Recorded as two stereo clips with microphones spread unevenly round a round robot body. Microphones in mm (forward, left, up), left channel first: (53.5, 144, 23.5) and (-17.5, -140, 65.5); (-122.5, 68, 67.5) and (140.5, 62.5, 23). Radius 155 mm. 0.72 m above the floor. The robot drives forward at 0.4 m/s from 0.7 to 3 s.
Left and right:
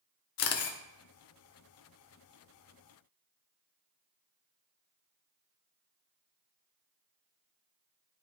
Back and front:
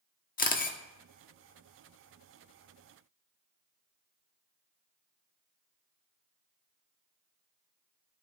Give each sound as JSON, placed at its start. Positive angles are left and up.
{"t": 0.4, "sound": "a camera shutter", "azimuth_deg": 115, "distance_m": 0.9}